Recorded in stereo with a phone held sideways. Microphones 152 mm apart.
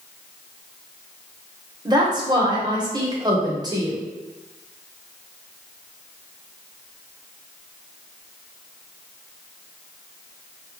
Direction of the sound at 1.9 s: 25° right (ahead or behind).